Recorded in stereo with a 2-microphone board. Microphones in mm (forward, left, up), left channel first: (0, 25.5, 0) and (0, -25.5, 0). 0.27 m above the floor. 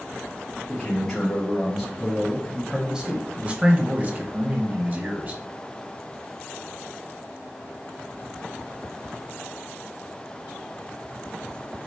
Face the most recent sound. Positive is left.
turn(degrees=-30)  # may be behind; listen again after turning